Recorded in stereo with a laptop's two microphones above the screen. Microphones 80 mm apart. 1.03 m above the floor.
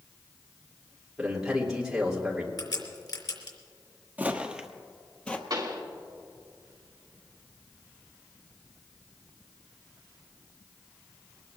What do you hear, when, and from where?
1.2 s a man speaking: 10° right (ahead or behind), 2.5 m
2.6 s a crack: 65° left (ahead or behind), 3.5 m
4.2 s footsteps: 20° right (ahead or behind), 1.1 m; by 5.4 s 15° left (ahead or behind), 1.1 m
5.5 s a pop: 55° right (ahead or behind), 2.5 m